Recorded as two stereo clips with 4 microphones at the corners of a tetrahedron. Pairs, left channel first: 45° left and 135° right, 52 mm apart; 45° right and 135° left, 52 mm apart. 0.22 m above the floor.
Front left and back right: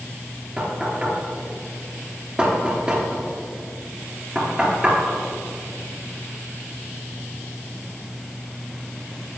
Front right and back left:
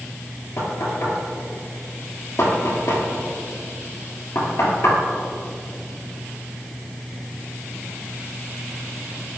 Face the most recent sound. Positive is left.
turn(degrees=-60)